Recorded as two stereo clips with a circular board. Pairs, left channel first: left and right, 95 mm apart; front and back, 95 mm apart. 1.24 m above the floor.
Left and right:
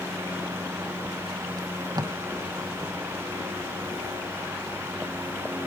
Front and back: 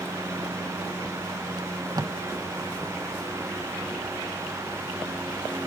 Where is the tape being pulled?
135° right.